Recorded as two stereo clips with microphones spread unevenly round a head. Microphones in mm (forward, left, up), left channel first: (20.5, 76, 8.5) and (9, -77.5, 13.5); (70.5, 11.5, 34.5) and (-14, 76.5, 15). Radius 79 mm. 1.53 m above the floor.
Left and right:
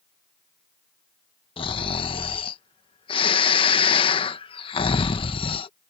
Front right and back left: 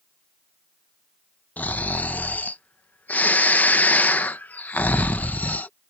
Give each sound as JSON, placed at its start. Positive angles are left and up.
{"t": 1.6, "sound": "snoring", "azimuth_deg": 30}